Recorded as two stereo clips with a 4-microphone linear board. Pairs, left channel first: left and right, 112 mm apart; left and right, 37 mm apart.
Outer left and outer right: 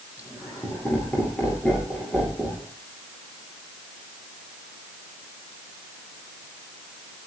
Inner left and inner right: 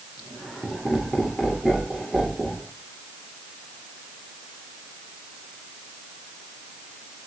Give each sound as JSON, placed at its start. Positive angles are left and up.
{"t": 0.2, "sound": "laughter", "side_deg": 15, "distance_m": 9.5}